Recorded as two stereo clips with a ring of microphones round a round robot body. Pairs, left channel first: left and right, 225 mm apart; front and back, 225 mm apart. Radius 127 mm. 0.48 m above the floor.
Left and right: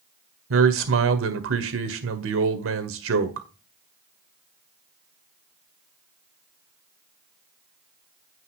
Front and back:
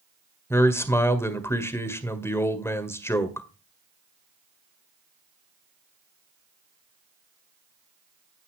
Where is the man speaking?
80° right, 1.9 m.